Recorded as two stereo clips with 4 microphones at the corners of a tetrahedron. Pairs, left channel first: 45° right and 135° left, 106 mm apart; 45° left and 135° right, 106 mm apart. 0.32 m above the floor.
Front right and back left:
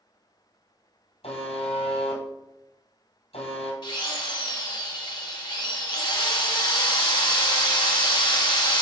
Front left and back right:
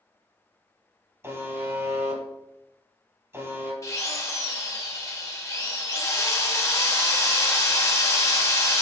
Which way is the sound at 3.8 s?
5° right.